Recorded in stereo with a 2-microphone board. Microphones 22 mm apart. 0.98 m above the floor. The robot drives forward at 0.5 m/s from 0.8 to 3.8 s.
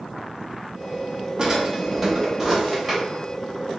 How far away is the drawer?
About 0.6 m.